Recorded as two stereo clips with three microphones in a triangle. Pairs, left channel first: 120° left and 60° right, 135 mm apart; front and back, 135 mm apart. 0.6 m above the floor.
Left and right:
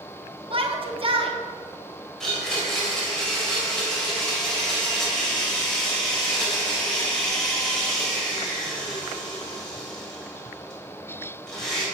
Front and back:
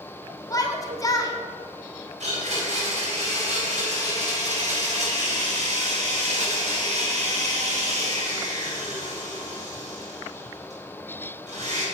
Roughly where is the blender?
Behind right.